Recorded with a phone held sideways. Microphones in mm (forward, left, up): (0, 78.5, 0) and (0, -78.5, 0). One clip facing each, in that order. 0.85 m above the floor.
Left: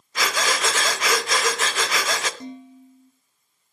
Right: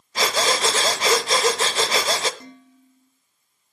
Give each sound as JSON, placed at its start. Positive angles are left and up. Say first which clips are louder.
{"t": 0.1, "sound": "breathing", "louder": "right 3 dB", "side_deg": -30, "distance_m": 0.9}
{"t": 2.4, "sound": "dishes clattering", "louder": "left 8 dB", "side_deg": 20, "distance_m": 1.3}